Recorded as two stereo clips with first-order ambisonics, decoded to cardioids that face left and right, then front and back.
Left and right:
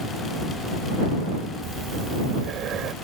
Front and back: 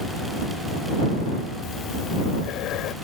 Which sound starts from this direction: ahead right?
Breathing, at 1.6 s.